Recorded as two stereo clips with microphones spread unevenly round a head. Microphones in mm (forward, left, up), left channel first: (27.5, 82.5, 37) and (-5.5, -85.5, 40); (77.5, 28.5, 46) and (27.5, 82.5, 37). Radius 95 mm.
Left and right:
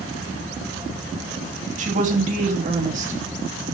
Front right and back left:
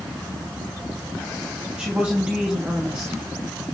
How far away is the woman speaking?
About 3 m.